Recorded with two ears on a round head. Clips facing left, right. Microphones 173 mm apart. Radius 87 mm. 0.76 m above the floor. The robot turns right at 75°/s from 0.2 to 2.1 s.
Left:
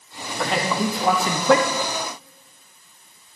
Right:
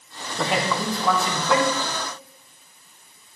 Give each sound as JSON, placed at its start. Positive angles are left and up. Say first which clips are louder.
{"t": 0.4, "sound": "a man speaking", "louder": "left 1 dB", "azimuth_deg": -15, "distance_m": 0.7}